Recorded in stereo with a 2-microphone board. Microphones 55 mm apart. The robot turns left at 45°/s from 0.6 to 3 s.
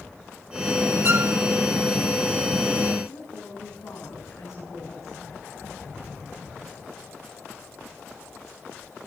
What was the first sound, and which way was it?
A violin, 45° right (ahead or behind).